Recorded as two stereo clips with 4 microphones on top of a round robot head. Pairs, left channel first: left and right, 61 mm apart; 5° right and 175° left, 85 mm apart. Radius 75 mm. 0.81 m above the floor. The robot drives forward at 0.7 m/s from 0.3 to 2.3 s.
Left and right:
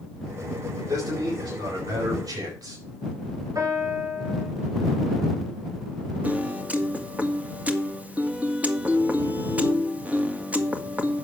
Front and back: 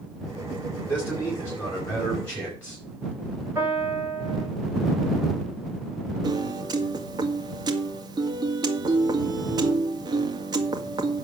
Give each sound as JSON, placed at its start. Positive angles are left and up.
{"t": 0.9, "sound": "a man speaking", "azimuth_deg": -70, "distance_m": 8.0}
{"t": 3.5, "sound": "a piano", "azimuth_deg": -110, "distance_m": 9.0}
{"t": 6.2, "sound": "a piano", "azimuth_deg": -155, "distance_m": 2.0}